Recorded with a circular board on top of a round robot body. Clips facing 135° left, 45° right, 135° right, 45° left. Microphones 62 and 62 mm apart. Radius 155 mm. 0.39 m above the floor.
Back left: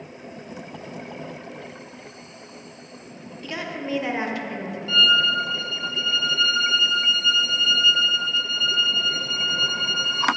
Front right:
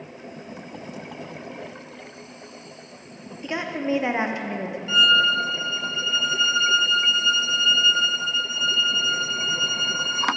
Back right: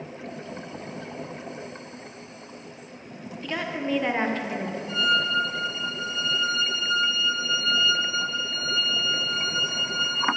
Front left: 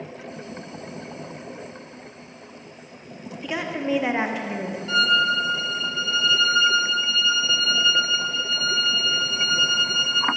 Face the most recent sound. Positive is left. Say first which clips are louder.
# front right 1 dB, front left 4 dB
turn(degrees=30)